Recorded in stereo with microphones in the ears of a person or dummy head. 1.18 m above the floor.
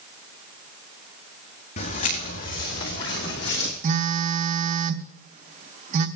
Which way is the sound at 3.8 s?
35° right (ahead or behind).